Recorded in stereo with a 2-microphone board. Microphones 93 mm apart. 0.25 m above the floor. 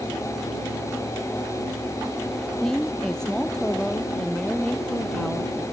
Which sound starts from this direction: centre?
A woman speaking, at 2.6 s.